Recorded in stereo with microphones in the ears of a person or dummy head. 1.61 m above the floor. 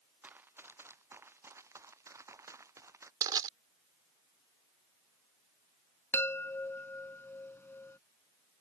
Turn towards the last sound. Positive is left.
turn(degrees=10)  # may be behind; listen again after turning